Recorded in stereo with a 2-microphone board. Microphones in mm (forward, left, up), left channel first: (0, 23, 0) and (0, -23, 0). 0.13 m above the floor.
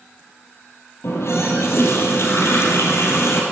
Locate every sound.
1.0 s a running tap: 70° left (ahead or behind), 2.5 m